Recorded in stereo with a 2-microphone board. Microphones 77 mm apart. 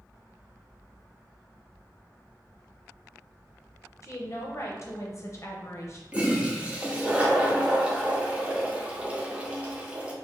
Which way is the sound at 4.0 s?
40° left (ahead or behind).